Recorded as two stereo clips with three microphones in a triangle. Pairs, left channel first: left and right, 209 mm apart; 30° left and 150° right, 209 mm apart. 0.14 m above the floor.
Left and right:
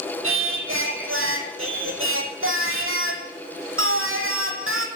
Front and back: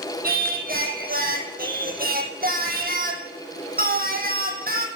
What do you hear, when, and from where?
0.2 s singing: 100° right, 1.1 m